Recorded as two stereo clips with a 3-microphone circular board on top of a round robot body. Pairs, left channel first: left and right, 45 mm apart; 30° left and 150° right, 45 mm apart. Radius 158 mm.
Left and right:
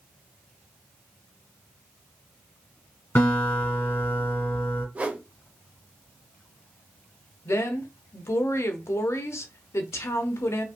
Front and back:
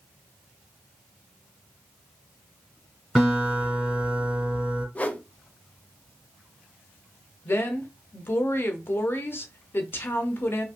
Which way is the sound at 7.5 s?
70° left.